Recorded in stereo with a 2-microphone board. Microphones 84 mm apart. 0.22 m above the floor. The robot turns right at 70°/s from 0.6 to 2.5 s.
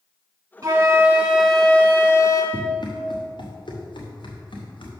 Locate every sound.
0.6 s a flute: 60° right, 1.8 m; by 2.4 s 70° left, 1.8 m
2.5 s running footsteps: 60° left (ahead or behind), 1.8 m; by 4.9 s 75° left (ahead or behind), 3 m